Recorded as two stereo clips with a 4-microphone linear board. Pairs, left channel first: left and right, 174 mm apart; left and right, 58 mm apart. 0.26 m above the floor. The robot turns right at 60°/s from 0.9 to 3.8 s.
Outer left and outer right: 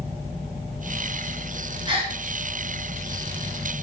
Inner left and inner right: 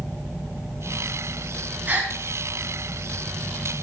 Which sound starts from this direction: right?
A gasp, at 1.9 s.